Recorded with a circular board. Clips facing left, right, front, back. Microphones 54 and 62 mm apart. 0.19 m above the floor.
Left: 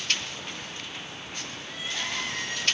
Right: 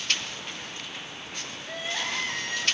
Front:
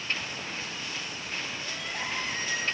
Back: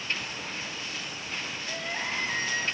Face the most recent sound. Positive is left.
turn(degrees=-135)